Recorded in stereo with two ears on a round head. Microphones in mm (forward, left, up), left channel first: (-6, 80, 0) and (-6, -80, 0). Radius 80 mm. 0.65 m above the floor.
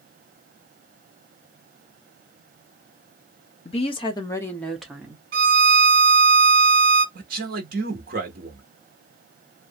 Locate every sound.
3.6 s a woman speaking: 35° left (ahead or behind), 0.9 m; by 5.2 s 15° right (ahead or behind), 0.9 m
5.3 s a violin: 55° right (ahead or behind), 0.8 m
7.2 s a man speaking: 55° right (ahead or behind), 1.2 m